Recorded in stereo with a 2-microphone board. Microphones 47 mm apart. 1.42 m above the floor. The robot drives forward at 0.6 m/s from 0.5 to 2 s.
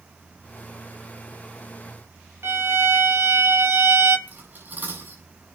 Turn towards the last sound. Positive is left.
turn(degrees=-40)  # may be behind; listen again after turning